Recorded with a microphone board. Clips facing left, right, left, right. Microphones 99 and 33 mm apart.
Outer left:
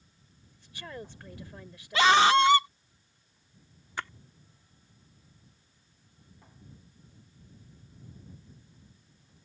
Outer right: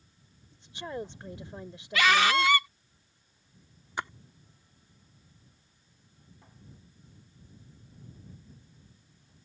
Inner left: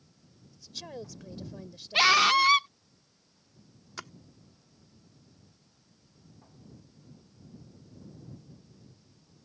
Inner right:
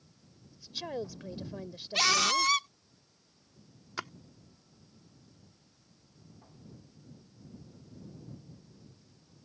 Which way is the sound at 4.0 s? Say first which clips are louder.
Outer right 2 dB, inner right 4 dB; 20° right (ahead or behind).